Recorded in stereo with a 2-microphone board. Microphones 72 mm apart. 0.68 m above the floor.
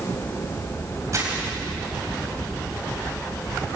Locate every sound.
1.1 s crumpling: 45° right (ahead or behind), 5 m